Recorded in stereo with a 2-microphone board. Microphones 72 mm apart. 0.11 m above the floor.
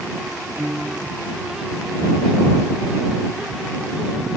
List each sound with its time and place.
0.6 s a piano: 30° right (ahead or behind)